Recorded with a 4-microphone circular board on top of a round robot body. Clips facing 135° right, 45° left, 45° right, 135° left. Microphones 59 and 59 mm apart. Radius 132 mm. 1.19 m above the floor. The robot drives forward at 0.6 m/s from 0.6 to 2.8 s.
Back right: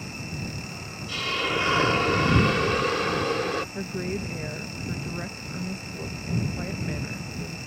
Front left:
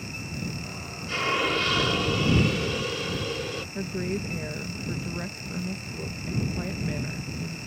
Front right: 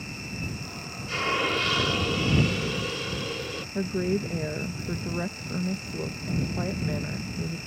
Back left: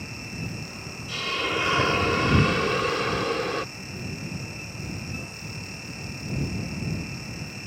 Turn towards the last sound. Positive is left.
turn(degrees=-50)